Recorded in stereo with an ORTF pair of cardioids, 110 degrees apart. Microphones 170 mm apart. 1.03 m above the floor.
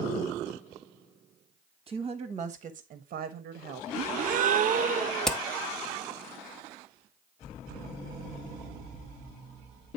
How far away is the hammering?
About 1.0 m.